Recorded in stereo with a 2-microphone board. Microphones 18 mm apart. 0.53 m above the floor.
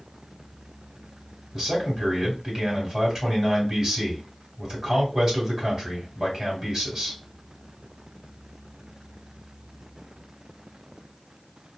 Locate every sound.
1.5 s a man speaking: 35° right (ahead or behind), 1.8 m